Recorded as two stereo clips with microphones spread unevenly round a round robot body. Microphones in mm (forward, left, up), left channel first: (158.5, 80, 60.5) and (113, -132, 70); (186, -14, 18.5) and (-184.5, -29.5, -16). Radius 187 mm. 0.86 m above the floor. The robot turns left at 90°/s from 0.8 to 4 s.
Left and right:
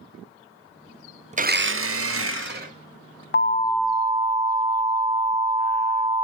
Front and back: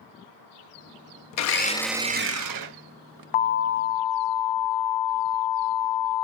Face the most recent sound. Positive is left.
turn(degrees=-25)